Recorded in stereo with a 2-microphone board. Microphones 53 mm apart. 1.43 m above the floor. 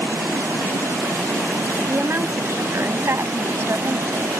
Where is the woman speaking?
50° right (ahead or behind).